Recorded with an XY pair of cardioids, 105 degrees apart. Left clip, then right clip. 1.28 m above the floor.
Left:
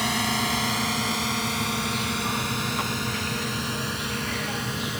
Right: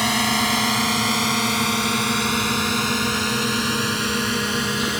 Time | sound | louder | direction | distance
0.0 | a drone | right 5 dB | 30° right | ?